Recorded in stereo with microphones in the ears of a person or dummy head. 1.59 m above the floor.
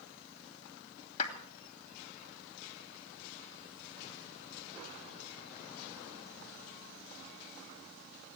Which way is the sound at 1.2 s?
35° left (ahead or behind).